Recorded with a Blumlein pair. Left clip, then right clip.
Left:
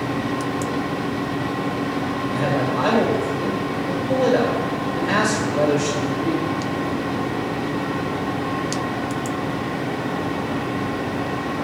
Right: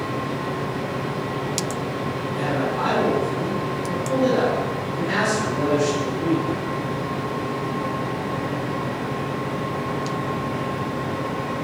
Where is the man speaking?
70° left, 2.5 m.